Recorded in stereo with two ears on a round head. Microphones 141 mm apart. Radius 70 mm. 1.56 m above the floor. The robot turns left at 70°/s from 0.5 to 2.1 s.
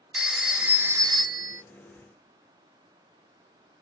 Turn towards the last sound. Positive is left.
turn(degrees=-115)